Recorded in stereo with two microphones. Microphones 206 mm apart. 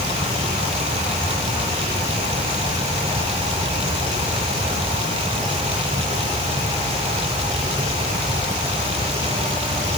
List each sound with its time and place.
Only background noise.